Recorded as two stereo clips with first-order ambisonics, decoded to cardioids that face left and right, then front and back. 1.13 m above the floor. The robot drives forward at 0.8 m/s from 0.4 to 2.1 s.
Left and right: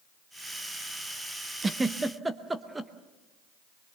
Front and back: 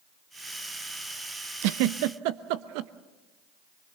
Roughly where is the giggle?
Behind.